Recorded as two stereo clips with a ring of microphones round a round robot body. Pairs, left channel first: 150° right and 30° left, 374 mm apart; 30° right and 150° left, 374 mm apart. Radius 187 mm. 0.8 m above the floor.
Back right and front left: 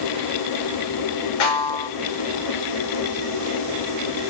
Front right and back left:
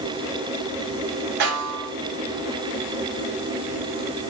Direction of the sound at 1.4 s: 175° right.